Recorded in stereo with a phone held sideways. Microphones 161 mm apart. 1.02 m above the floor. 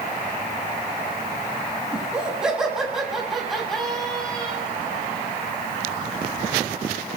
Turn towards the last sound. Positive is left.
turn(degrees=5)  # may be behind; listen again after turning